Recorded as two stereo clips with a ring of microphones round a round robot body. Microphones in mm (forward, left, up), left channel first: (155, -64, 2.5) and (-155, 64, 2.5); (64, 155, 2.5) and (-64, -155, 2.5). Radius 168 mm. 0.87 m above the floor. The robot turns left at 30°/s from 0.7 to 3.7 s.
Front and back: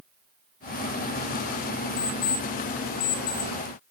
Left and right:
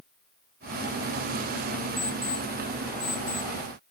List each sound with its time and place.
2.0 s an alarm clock: 15° right, 2 m; by 3.5 s 60° right, 2 m